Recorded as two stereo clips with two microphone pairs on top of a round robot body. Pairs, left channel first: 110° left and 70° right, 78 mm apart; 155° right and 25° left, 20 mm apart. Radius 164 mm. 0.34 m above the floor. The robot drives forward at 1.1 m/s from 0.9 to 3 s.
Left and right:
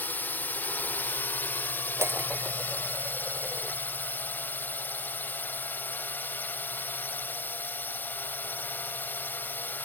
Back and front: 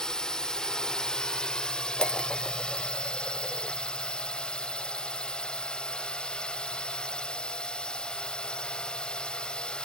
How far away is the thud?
I don't hear a thud.